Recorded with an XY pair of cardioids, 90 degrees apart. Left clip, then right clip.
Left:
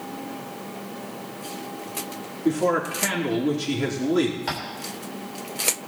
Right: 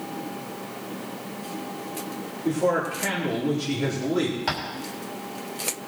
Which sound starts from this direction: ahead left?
A man speaking, at 2.5 s.